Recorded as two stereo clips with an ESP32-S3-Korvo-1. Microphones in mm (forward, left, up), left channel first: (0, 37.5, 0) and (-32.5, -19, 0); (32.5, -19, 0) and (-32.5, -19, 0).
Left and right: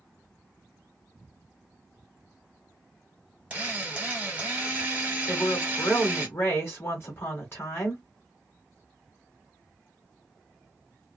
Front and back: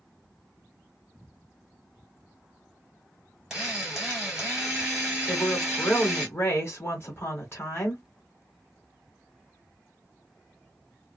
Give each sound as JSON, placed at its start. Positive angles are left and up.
{"t": 3.5, "sound": "a drill", "azimuth_deg": -115, "distance_m": 1.5}
{"t": 5.3, "sound": "a woman speaking", "azimuth_deg": 25, "distance_m": 1.3}